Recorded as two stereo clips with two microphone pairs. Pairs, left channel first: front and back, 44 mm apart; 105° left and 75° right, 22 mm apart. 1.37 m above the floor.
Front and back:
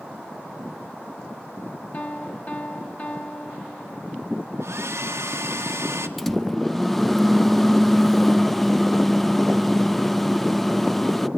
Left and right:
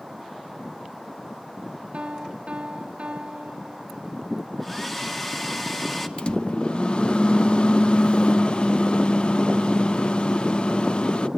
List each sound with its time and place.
1.9 s a piano: 50° right, 1.4 m
4.6 s a hair dryer: straight behind, 1.6 m
6.2 s a microwave: 95° left, 0.5 m